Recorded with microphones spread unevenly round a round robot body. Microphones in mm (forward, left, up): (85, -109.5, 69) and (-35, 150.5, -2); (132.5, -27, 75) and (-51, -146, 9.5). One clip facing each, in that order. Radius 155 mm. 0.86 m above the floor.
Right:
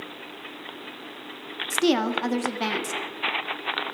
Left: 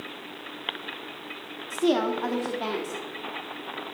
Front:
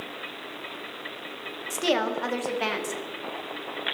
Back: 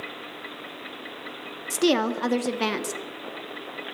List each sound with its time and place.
1.7 s a woman speaking: 120° right, 1.2 m